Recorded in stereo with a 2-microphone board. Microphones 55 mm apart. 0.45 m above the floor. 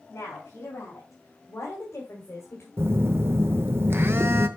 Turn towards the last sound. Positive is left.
turn(degrees=-50)  # may be behind; listen again after turning